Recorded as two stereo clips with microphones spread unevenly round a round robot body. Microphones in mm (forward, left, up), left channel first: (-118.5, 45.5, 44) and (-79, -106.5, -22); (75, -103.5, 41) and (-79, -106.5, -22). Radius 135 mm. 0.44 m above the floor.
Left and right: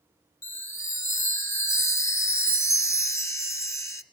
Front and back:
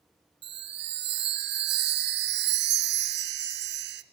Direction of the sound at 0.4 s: Straight behind.